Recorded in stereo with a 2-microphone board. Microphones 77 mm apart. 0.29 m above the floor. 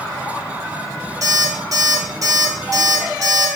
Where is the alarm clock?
50° right (ahead or behind), 4.5 m.